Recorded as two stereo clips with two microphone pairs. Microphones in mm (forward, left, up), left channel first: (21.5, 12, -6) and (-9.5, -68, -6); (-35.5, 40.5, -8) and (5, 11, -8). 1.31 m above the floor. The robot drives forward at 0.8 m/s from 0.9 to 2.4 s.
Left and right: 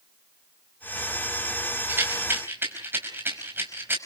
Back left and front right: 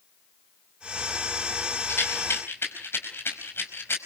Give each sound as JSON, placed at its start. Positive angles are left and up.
{"t": 1.9, "sound": "a rattle", "azimuth_deg": -175, "distance_m": 4.5}